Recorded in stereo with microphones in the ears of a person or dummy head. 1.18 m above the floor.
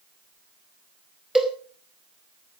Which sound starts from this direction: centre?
A cowbell, at 1.4 s.